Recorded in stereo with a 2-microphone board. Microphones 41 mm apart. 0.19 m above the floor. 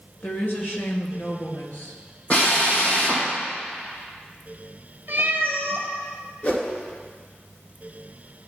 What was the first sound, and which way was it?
A woman speaking, 45° left (ahead or behind).